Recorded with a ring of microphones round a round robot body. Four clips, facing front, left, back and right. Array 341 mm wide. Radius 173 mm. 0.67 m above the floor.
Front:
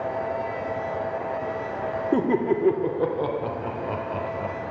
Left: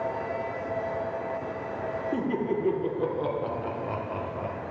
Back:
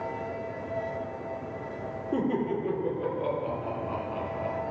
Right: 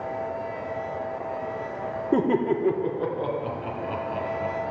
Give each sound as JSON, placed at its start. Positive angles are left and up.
{"t": 2.1, "sound": "laughter", "azimuth_deg": -45, "distance_m": 1.7}